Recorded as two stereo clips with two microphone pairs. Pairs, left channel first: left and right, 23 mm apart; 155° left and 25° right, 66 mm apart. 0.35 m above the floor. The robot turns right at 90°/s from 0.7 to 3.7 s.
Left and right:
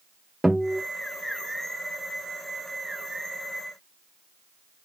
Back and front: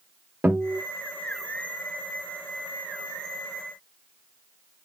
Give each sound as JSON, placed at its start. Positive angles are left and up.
{"t": 0.4, "sound": "a guitar", "azimuth_deg": -60, "distance_m": 1.2}